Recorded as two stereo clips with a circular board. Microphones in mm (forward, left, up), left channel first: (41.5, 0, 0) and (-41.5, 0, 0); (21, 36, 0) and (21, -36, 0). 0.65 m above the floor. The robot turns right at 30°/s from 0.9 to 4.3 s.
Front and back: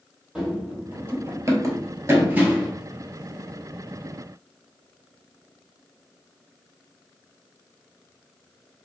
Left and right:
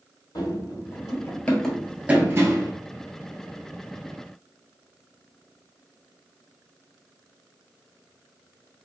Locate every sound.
0.3 s running footsteps: 100° left, 1.2 m; by 2.7 s 100° right, 0.9 m